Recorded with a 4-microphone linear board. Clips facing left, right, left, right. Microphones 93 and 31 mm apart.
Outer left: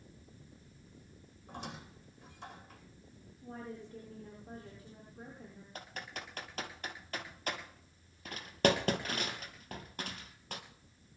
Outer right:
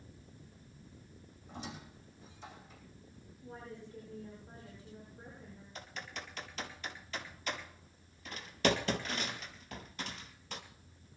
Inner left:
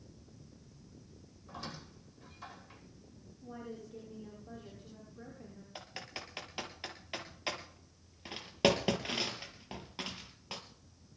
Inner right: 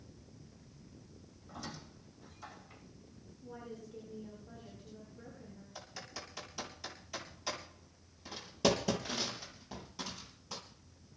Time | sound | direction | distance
1.5 | a squeak | 60° left (ahead or behind) | 10 m
3.4 | a woman speaking | 45° left (ahead or behind) | 9.5 m
5.8 | typing on a keyboard | 45° left (ahead or behind) | 3 m